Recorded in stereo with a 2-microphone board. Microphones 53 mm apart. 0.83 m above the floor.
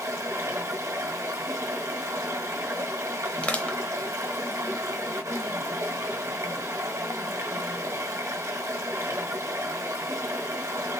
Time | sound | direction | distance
0.0 | running water | 75° right (ahead or behind) | 1.2 m
3.4 | crushing | 25° left (ahead or behind) | 0.7 m